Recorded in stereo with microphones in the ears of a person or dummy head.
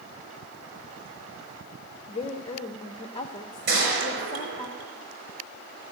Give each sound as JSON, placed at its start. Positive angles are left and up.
{"t": 2.1, "sound": "a woman speaking", "side_deg": 20, "distance_m": 0.8}
{"t": 3.7, "sound": "a gunshot", "side_deg": -90, "distance_m": 5.0}